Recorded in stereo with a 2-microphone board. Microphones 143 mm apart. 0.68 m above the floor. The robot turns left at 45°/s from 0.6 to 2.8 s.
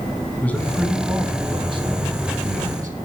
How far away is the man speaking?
About 5.5 m.